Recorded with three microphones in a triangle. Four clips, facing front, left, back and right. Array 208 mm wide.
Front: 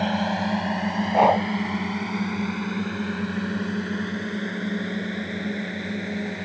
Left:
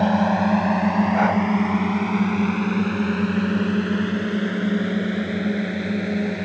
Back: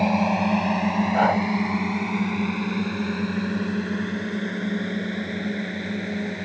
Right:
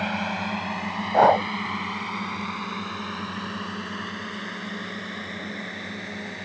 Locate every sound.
0.0 s a drone: 105° left; by 6.5 s 90° left
1.1 s breathing: 65° right